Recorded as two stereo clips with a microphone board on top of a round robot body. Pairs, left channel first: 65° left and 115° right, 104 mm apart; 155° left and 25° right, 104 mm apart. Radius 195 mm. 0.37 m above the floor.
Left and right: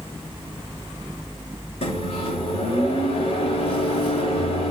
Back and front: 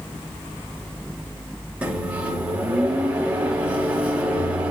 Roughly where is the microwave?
Ahead left.